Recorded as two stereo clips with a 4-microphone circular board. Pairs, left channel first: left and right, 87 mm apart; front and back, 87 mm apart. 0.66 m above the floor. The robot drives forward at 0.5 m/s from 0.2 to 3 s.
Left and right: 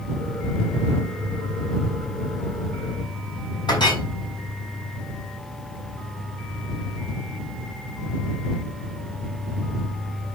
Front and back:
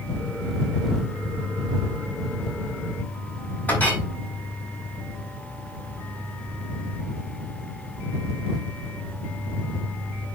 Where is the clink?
70° left, 3.5 m.